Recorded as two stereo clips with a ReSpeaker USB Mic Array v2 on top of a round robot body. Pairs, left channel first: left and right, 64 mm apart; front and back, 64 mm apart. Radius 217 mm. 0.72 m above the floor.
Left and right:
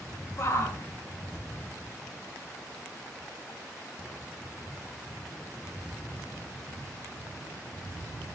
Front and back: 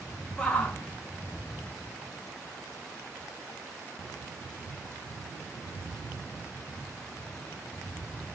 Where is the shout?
75° left, 1.1 m; by 3.6 s 30° left, 2.5 m.